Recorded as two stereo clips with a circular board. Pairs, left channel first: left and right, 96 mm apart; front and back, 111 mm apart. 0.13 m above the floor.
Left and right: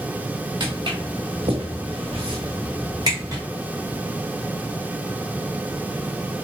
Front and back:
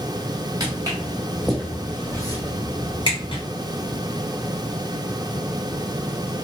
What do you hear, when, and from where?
0.6 s footsteps: 125° right, 0.8 m; by 3.4 s 35° right, 1.2 m